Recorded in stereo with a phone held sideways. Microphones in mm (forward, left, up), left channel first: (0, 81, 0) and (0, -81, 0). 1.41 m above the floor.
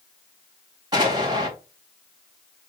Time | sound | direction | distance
0.9 | an explosion | 25° right (ahead or behind) | 2.5 m